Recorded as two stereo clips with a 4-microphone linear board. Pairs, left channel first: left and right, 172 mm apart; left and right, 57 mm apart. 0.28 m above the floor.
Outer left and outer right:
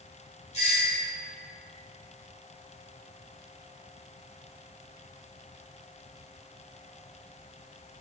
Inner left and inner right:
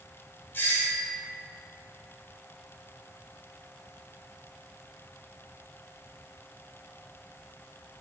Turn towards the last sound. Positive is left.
turn(degrees=35)  # may be behind; listen again after turning